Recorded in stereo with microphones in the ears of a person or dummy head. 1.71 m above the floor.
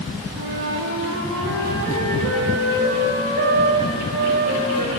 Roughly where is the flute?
Right.